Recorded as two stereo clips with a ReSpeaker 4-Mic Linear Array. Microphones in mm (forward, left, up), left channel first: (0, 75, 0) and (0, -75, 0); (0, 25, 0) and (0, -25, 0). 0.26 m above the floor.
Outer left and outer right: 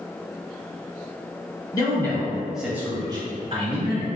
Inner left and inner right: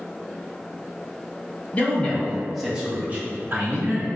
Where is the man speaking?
25° left (ahead or behind), 1.3 m; by 4.1 s 50° right (ahead or behind), 1.6 m.